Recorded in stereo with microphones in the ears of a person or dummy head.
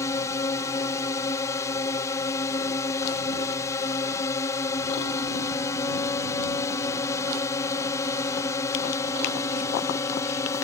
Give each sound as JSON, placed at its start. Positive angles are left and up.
{"t": 0.0, "sound": "a drone", "side_deg": 15}